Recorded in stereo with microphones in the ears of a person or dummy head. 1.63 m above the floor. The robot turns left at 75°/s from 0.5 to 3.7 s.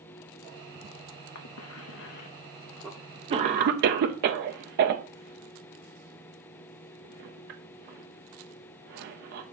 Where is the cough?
65° left (ahead or behind), 0.7 m; by 9.4 s 60° right (ahead or behind), 0.7 m.